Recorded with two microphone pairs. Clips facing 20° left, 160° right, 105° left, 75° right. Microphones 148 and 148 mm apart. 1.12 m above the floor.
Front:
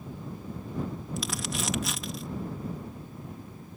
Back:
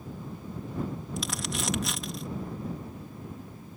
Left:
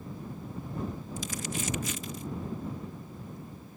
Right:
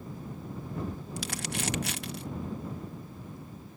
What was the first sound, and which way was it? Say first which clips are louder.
Crumpling: front 1 dB, even; 70° right.